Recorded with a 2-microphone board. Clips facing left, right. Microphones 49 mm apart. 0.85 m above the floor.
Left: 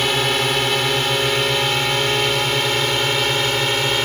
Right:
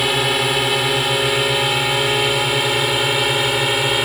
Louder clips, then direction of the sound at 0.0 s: Right 1 dB; 5° right (ahead or behind).